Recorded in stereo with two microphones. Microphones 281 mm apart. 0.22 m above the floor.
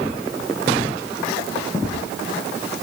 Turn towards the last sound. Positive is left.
No sound to turn to.